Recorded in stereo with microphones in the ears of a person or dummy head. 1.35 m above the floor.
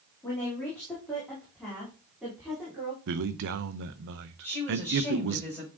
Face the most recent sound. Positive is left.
turn(degrees=10)  # may be behind; listen again after turning